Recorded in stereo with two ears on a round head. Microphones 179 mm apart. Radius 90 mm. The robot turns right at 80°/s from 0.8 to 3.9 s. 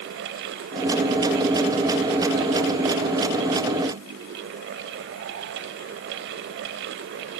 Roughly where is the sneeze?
No sneeze in this recording.